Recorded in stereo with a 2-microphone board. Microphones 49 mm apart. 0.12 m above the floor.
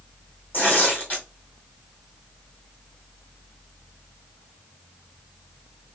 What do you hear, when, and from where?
0.5 s tearing paper: 35° left (ahead or behind), 2.5 m